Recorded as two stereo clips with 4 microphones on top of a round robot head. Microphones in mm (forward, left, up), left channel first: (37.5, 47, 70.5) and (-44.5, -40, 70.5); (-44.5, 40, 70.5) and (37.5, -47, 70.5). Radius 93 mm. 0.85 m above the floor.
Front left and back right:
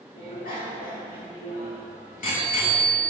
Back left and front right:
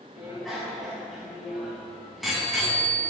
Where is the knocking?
No knocking in this recording.